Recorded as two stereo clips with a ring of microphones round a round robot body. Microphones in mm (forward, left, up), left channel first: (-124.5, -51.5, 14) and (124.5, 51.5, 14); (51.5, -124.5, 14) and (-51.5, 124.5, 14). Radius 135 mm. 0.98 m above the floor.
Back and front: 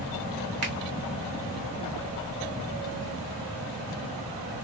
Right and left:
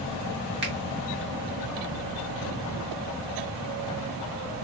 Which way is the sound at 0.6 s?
60° left.